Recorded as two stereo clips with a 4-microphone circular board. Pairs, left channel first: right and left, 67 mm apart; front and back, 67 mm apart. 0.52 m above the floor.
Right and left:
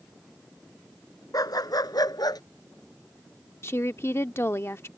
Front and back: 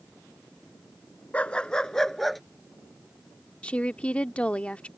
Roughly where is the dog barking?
Right.